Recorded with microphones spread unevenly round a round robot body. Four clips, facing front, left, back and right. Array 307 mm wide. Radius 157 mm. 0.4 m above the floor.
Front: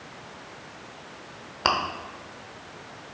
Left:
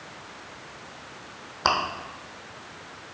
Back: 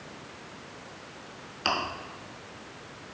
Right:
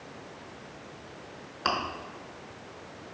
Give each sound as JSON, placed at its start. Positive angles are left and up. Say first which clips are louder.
{"t": 1.6, "sound": "chewing", "louder": "left 5 dB, front 5 dB", "azimuth_deg": 35, "distance_m": 0.9}